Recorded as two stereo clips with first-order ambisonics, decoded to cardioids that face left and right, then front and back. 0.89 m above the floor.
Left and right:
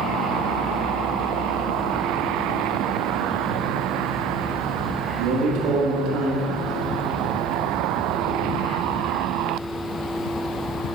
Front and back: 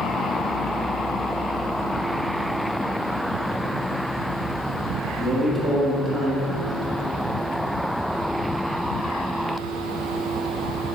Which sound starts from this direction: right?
A man speaking, at 5.2 s.